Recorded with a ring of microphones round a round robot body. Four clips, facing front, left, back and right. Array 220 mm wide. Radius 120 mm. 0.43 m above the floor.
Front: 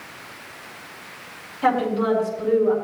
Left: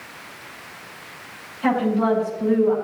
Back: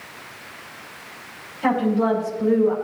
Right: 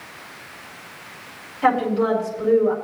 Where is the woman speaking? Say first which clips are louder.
Right 1 dB, even; 55° right, 5 m.